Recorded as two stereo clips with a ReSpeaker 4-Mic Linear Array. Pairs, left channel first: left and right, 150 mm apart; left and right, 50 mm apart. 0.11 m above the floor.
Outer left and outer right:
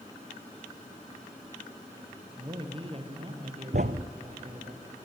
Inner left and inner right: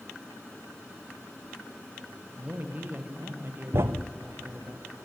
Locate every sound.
2.4 s a man speaking: 30° right (ahead or behind), 3 m; by 4.7 s 55° right (ahead or behind), 3 m
3.7 s a thud: 75° right (ahead or behind), 0.9 m